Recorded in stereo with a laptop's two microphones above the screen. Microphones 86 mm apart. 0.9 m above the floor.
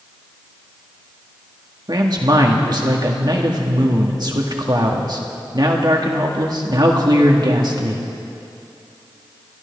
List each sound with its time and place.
1.9 s a man speaking: 50° right (ahead or behind), 1.6 m